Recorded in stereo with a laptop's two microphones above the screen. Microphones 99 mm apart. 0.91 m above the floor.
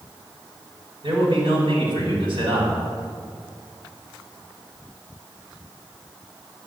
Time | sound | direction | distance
1.0 | a man speaking | 60° right (ahead or behind) | 5 m